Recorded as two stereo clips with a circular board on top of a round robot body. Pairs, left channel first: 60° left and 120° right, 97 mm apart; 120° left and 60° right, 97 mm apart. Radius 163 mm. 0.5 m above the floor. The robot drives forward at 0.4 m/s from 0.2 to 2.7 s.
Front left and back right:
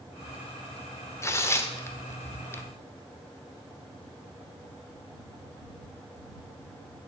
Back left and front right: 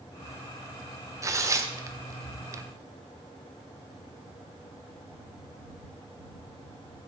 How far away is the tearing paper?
About 1.1 m.